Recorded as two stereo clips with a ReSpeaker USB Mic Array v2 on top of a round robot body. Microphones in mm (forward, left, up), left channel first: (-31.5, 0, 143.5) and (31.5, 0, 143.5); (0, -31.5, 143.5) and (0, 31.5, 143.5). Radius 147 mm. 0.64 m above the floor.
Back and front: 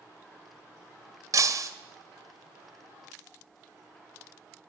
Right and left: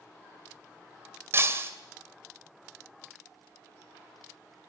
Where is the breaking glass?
35° left, 2.5 m.